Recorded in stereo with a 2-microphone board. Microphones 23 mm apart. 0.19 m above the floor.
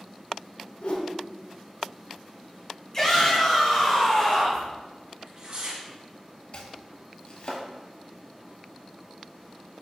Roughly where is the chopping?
Left.